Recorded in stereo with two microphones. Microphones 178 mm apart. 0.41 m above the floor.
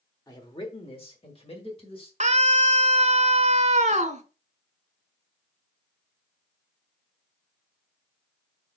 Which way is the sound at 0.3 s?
20° left (ahead or behind).